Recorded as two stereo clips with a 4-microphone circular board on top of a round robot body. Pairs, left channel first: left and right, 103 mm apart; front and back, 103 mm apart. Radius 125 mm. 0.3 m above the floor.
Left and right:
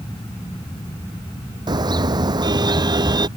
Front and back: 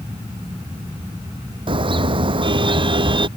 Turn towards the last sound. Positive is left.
turn(degrees=-140)